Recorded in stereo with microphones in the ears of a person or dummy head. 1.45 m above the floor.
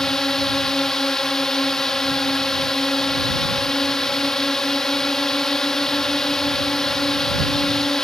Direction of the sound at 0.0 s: Centre (ahead or behind).